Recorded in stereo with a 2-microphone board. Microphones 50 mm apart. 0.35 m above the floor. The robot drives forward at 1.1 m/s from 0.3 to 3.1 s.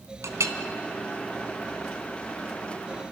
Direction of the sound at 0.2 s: 75° right (ahead or behind).